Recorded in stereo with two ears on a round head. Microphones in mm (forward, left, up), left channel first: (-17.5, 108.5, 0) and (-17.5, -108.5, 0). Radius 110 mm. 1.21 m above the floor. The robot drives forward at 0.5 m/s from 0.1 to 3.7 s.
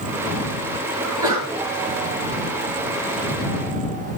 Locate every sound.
1.0 s a sneeze: 20° right (ahead or behind), 9 m